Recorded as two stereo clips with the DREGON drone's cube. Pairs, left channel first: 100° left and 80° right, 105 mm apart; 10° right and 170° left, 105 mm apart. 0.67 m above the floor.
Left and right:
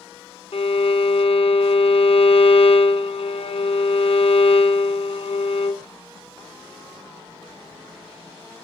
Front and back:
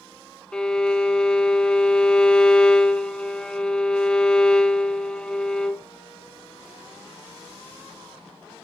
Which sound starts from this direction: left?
A violin, at 0.5 s.